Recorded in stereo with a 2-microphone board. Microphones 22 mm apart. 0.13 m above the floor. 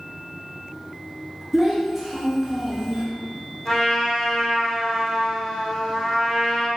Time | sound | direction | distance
1.5 | a child speaking | 5° right (ahead or behind) | 1.0 m
3.6 | a trumpet | 20° left (ahead or behind) | 1.6 m